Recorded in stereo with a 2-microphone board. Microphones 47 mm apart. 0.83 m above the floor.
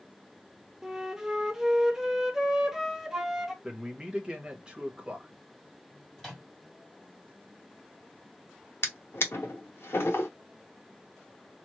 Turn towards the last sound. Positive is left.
turn(degrees=60)  # may be behind; listen again after turning